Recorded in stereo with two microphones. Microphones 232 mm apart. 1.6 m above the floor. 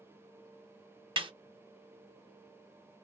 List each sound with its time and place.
1.2 s a snare drum: 25° right (ahead or behind), 0.6 m